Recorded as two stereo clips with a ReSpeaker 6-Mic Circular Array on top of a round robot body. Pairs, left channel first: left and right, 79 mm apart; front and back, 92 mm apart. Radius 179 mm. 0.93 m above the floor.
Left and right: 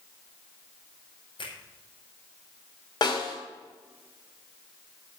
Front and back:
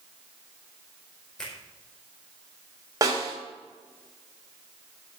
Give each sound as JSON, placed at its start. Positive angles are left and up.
{"t": 1.4, "sound": "a finger snap", "azimuth_deg": 85, "distance_m": 5.0}
{"t": 3.0, "sound": "a snare drum", "azimuth_deg": 125, "distance_m": 3.0}